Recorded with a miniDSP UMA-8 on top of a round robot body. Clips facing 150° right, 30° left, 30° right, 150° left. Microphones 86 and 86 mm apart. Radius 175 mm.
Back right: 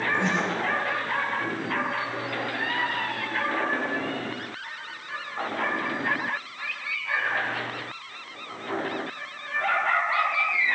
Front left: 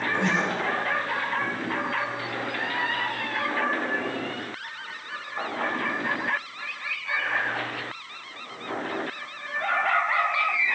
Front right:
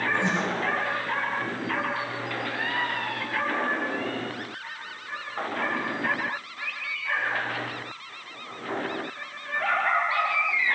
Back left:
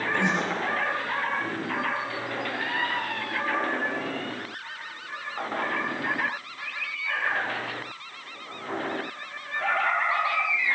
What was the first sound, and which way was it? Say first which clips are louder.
Breathing: front left 2 dB, back left 3 dB; 120° left.